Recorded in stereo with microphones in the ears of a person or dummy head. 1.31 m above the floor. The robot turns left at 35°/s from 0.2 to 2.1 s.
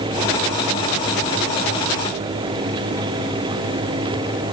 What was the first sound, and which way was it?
Only background noise.